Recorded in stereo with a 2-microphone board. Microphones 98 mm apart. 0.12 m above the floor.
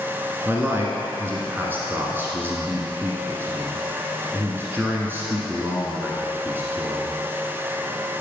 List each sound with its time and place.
0.5 s a man speaking: 20° right (ahead or behind), 1.8 m